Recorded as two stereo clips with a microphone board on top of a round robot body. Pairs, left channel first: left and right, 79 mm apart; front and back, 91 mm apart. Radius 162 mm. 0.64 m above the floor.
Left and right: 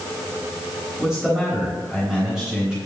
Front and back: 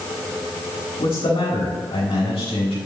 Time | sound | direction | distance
1.0 | a man speaking | straight ahead | 3.5 m